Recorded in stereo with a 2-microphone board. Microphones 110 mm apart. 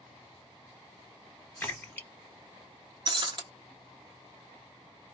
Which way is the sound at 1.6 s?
15° left (ahead or behind).